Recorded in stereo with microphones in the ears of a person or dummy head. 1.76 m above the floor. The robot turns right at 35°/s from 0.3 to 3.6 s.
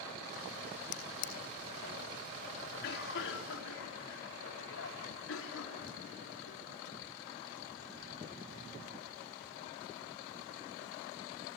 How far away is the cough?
About 3.5 m.